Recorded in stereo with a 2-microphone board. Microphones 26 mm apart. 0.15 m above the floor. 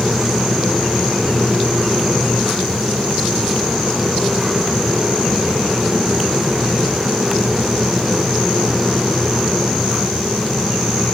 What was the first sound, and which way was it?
Only background noise.